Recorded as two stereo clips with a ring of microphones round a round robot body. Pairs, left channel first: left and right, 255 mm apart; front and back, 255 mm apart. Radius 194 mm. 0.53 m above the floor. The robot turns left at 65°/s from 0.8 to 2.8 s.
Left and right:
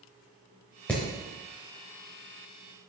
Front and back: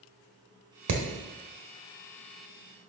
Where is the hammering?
175° left, 1.4 m; by 1.0 s 165° left, 1.4 m.